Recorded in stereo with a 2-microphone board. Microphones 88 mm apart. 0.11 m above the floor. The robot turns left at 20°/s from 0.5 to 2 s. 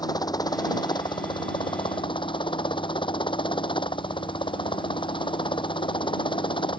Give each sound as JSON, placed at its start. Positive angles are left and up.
{"t": 0.0, "sound": "a helicopter", "azimuth_deg": 125}